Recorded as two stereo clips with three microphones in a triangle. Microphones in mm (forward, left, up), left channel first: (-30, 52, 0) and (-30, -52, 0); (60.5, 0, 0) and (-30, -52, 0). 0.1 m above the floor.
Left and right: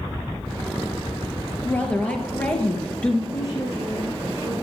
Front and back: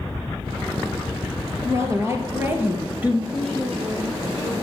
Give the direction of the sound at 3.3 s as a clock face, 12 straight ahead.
5 o'clock.